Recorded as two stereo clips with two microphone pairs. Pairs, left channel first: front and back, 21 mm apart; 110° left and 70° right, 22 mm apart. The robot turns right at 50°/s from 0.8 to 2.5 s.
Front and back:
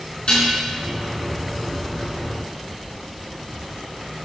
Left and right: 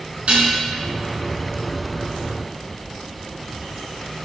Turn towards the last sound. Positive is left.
turn(degrees=40)